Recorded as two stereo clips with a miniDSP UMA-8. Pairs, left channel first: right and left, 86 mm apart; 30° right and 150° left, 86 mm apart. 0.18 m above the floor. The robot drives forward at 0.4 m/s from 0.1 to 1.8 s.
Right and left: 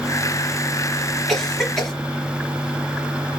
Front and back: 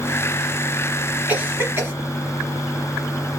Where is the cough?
170° right, 1.1 m; by 1.9 s 175° right, 1.2 m.